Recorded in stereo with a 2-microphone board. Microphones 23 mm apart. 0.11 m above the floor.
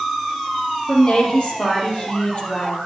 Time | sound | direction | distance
0.9 | a woman speaking | 45° left (ahead or behind) | 3.5 m